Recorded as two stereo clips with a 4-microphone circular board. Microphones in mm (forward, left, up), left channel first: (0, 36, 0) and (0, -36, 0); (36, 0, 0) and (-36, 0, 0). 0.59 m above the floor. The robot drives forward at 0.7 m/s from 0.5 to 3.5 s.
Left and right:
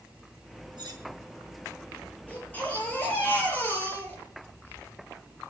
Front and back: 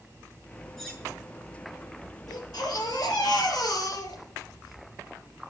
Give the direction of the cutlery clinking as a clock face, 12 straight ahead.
3 o'clock.